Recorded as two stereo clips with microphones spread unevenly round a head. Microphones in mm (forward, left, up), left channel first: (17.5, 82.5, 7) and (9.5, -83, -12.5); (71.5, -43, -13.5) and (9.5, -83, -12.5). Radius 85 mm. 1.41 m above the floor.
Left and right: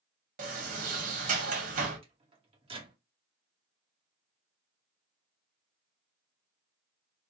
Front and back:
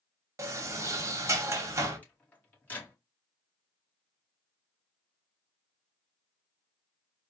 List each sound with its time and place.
0.4 s a sliding door: 125° right, 1.2 m
2.0 s a microwave: 35° right, 1.7 m